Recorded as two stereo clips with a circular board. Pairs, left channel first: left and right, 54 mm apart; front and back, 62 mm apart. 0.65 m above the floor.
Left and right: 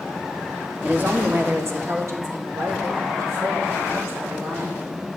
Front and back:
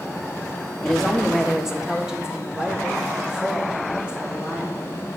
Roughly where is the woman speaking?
Right.